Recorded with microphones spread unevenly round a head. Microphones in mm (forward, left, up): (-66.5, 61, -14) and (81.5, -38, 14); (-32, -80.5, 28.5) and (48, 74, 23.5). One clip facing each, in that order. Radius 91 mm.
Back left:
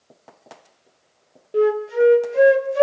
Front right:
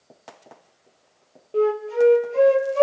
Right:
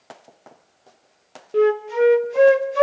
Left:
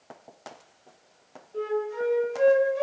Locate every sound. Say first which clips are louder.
1.5 s a flute: back left 2 dB, right 11 dB; 135° right, 1.2 m